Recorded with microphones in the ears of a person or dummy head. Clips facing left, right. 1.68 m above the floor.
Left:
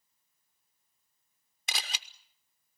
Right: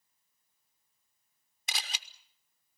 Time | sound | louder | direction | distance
1.7 | a camera shutter | left 2 dB | 45° left (ahead or behind) | 0.5 m